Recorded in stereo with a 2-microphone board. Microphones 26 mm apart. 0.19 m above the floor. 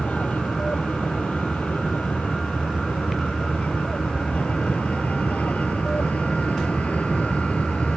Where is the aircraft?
65° left (ahead or behind); by 8.0 s 60° left (ahead or behind).